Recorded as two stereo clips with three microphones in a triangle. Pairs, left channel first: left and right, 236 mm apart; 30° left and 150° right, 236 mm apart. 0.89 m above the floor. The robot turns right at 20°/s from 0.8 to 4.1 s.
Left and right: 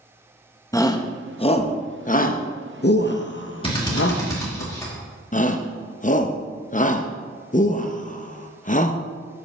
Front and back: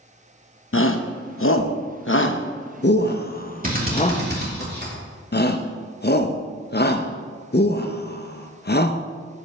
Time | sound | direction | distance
0.7 | a shout | 20° left | 0.7 m
3.6 | a drill | 160° left | 2.5 m
5.3 | a shout | 50° left | 0.5 m